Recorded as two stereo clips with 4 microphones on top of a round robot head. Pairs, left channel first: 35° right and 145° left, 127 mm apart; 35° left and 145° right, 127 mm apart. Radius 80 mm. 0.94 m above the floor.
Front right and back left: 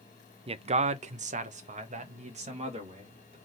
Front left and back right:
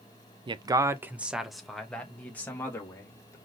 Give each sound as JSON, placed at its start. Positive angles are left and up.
{"t": 0.5, "sound": "a man speaking", "azimuth_deg": 175, "distance_m": 0.6}